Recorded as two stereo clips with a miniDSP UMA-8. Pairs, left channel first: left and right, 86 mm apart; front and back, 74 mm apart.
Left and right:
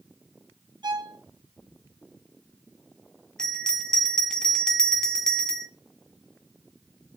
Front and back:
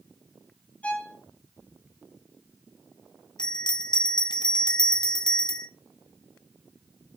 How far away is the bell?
About 0.7 m.